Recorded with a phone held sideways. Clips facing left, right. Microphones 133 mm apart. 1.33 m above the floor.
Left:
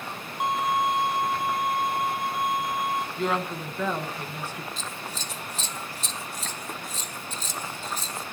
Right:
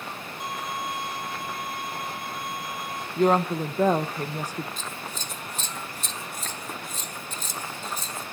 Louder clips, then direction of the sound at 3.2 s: Right 12 dB; 40° right (ahead or behind).